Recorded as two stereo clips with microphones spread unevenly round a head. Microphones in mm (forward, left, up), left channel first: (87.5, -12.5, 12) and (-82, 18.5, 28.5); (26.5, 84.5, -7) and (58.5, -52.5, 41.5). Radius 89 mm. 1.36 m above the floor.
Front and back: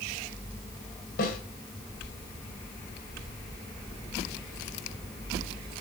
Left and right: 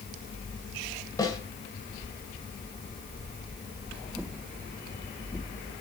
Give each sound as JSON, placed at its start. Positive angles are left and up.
{"t": 1.2, "sound": "a snare drum", "azimuth_deg": 30, "distance_m": 2.5}